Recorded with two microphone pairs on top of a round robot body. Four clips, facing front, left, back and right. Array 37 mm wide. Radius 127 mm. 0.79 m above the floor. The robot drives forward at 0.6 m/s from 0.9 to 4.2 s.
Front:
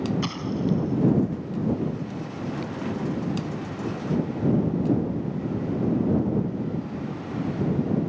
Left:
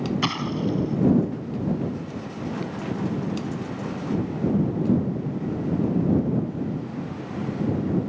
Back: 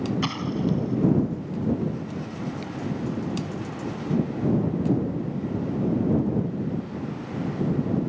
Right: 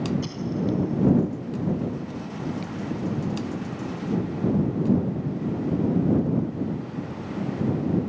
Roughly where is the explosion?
Left.